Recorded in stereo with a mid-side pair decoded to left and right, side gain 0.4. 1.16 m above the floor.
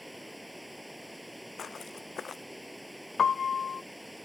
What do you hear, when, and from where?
0.0 s running water: straight ahead
1.6 s footsteps: 55° left
3.2 s a piano: 50° left